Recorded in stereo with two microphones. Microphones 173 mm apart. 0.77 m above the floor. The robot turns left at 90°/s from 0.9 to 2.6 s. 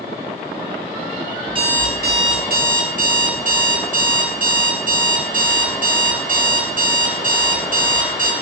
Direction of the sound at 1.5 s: 20° right.